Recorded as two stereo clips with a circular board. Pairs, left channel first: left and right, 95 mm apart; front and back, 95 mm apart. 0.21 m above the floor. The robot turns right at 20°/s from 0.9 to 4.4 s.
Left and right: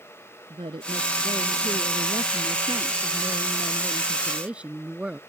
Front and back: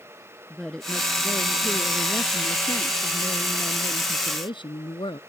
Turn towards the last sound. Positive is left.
turn(degrees=-15)